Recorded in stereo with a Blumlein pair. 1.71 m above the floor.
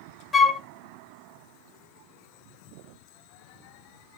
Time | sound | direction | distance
0.3 | a flute | 15° left | 0.6 m